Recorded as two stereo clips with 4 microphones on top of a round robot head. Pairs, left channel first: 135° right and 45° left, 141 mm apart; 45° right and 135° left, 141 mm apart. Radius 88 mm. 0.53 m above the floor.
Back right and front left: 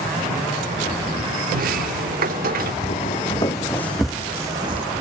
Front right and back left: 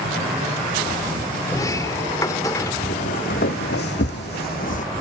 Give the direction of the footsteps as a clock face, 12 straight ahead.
3 o'clock.